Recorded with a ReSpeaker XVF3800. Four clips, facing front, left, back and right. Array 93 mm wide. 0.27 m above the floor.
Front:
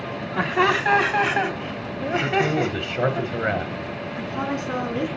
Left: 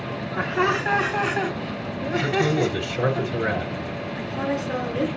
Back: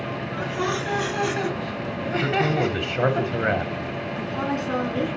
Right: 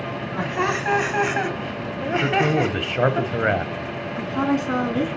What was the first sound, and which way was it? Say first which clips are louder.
Laughter: left 2 dB, front 7 dB; 5° right.